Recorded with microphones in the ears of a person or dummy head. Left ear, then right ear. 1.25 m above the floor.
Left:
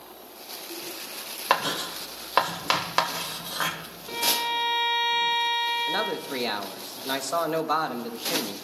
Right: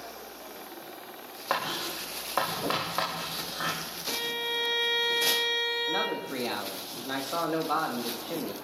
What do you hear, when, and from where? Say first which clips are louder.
1.5 s writing: left 5 dB; 70° left (ahead or behind), 2.5 m
4.1 s a violin: left 6 dB; centre (ahead or behind), 1.1 m
5.9 s a man speaking: left 2 dB; 75° left (ahead or behind), 1.8 m